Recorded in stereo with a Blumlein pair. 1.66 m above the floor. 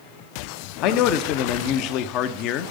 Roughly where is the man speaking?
Ahead left.